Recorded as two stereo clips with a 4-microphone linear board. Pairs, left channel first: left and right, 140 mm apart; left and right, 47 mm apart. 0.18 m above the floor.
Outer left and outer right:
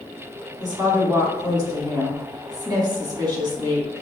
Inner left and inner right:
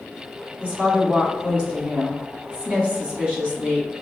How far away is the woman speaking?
About 1.6 m.